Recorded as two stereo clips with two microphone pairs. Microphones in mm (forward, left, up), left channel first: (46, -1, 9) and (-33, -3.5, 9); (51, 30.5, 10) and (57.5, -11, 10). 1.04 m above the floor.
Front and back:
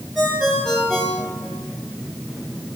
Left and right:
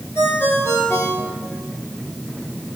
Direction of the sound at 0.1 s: 90° left.